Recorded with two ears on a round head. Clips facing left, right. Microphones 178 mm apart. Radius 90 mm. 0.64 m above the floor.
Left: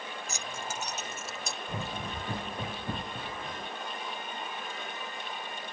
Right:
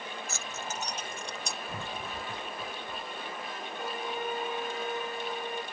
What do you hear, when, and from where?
0.3 s keys jangling: 15° left (ahead or behind); by 1.6 s centre (ahead or behind)
1.7 s running footsteps: 15° left (ahead or behind); by 3.7 s 55° left (ahead or behind)
3.8 s a violin: 50° right (ahead or behind)